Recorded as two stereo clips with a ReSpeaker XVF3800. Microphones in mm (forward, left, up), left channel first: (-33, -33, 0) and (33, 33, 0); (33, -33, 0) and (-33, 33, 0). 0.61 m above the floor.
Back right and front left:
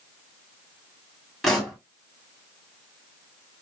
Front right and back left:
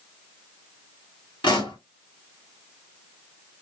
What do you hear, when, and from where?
1.4 s a pop: 45° right, 2.5 m